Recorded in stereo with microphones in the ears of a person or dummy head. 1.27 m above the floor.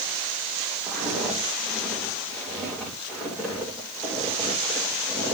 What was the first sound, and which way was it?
Footsteps, 5° left (ahead or behind).